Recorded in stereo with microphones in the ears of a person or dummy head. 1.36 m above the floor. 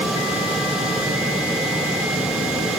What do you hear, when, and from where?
Only background noise.